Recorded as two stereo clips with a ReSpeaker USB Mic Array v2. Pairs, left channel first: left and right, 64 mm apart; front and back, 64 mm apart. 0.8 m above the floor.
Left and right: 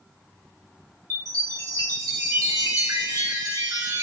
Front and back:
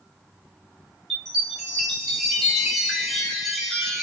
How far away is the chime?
About 2.5 m.